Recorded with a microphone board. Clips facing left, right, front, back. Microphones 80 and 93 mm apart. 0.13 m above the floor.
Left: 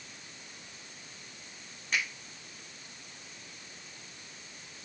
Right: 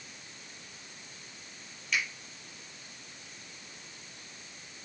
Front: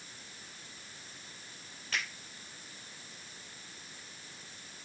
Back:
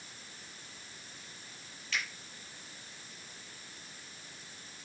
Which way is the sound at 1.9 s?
40° left.